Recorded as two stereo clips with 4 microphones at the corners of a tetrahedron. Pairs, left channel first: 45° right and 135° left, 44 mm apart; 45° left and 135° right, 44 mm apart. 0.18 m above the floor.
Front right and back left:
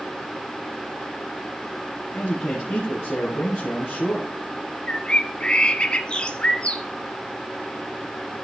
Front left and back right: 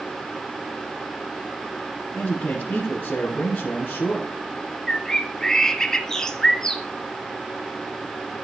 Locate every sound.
2.1 s a man speaking: 10° right, 2.5 m
4.9 s a bird: 15° right, 0.9 m